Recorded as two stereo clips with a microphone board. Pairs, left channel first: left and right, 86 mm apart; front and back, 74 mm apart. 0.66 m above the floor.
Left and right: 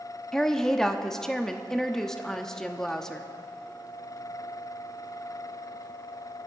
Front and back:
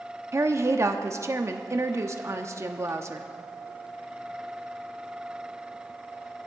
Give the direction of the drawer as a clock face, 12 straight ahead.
I don't hear a drawer.